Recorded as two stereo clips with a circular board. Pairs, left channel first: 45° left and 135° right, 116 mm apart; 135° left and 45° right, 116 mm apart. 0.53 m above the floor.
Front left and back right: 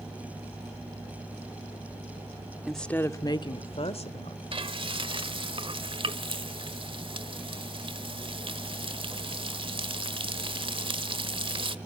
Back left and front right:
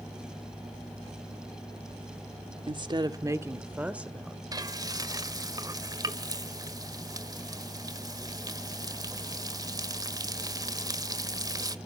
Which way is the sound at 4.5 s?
100° right.